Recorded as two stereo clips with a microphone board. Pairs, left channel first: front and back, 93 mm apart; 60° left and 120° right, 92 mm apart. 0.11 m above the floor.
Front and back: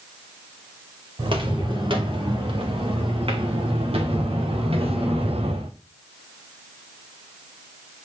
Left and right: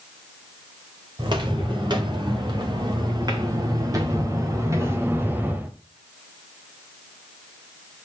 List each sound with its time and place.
1.2 s footsteps: 155° right, 3.5 m; by 5.7 s 165° left, 1.6 m